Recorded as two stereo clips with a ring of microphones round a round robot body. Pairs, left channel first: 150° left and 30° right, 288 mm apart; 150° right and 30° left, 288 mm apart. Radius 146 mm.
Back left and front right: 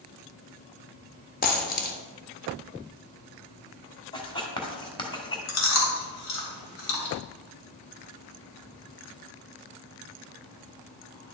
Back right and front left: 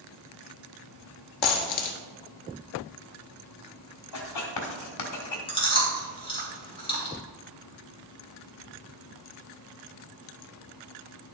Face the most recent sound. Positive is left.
turn(degrees=140)